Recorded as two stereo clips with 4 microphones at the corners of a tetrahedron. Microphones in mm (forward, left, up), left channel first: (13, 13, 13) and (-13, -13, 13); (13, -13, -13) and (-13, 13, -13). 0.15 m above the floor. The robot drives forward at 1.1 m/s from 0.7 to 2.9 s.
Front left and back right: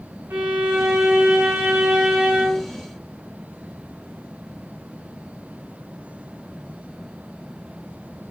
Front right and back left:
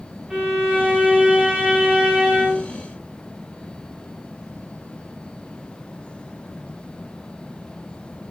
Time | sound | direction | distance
0.3 | a violin | 150° right | 8 m